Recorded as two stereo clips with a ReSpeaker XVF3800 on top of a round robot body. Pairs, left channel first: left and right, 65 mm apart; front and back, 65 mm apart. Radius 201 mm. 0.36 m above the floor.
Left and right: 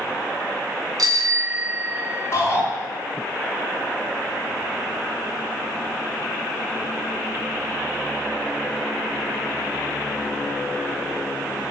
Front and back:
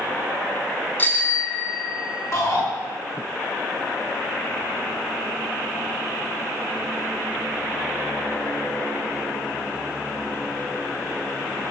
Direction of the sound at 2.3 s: 35° left.